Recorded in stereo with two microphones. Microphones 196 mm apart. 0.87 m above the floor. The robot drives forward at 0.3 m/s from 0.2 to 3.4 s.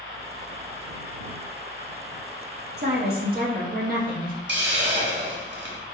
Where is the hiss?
60° right (ahead or behind), 0.9 m.